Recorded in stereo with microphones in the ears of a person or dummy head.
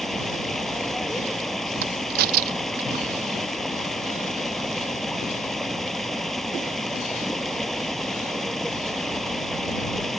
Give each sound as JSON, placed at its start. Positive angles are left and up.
{"t": 0.0, "sound": "running water", "side_deg": 0}
{"t": 1.8, "sound": "a crack", "side_deg": -50}